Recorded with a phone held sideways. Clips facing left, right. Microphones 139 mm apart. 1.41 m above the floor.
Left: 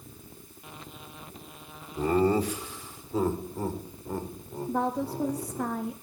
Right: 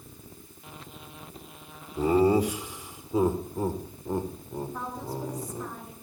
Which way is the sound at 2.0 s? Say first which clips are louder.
Right 2 dB; 10° right (ahead or behind).